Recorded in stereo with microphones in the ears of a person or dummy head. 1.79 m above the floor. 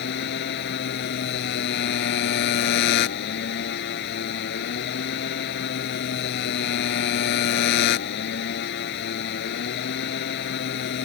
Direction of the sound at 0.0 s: 65° left (ahead or behind).